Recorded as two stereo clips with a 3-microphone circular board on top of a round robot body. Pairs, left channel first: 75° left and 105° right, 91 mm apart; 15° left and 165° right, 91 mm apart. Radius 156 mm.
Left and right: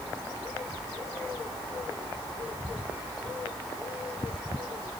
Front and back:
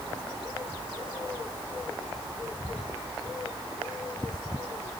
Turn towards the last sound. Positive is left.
No sound to turn to.